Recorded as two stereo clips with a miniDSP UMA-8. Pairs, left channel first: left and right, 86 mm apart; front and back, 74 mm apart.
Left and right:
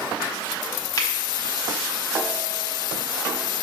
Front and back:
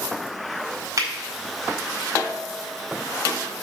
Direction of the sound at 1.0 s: 135° left.